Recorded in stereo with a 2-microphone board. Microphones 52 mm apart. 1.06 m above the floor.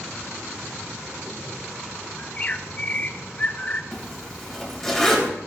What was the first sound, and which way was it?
A bird, 30° left (ahead or behind).